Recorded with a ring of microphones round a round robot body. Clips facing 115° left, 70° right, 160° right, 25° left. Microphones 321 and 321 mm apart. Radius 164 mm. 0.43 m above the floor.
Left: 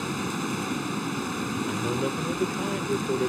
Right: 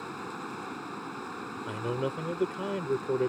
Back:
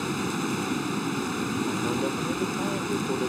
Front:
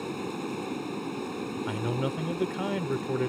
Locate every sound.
0.0 s running water: 145° left
1.7 s a man speaking: 30° left